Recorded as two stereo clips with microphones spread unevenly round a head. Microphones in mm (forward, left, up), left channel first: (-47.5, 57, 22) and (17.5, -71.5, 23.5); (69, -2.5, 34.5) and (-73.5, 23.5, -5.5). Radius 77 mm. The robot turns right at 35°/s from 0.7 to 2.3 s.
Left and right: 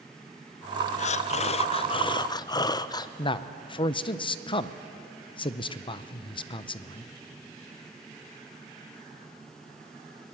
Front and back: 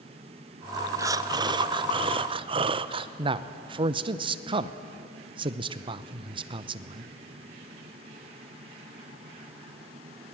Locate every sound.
1.0 s breathing: 125° left, 0.5 m; by 3.1 s 170° left, 0.5 m
3.2 s a man speaking: 160° left, 0.6 m